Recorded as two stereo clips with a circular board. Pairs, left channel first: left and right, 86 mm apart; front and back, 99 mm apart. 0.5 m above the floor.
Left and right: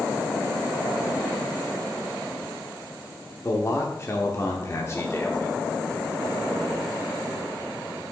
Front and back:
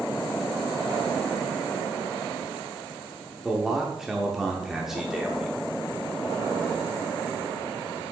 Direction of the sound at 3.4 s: 95° left.